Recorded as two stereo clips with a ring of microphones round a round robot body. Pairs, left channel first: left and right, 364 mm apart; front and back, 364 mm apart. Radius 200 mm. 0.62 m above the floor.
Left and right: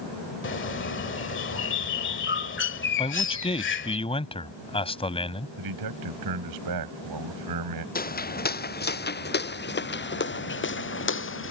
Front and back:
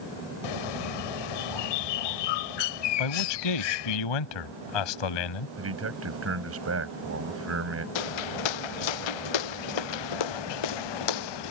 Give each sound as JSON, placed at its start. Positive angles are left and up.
{"t": 0.4, "sound": "a bird", "azimuth_deg": 30}
{"t": 3.0, "sound": "a man speaking", "azimuth_deg": 15}
{"t": 5.6, "sound": "a man speaking", "azimuth_deg": -130}
{"t": 8.0, "sound": "footsteps", "azimuth_deg": 25}